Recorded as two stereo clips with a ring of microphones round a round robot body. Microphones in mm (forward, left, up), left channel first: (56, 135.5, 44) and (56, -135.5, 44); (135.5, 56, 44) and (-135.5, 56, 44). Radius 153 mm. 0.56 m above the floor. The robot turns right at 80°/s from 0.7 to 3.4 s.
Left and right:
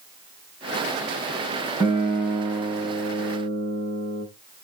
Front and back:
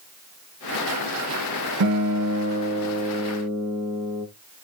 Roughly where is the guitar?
Behind.